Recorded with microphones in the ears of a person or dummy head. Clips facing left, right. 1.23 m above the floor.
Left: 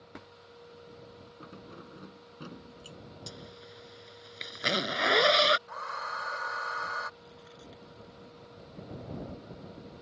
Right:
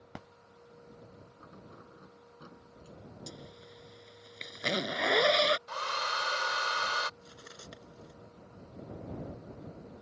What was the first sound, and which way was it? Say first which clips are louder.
Keys jangling: left 6 dB; 40° left (ahead or behind).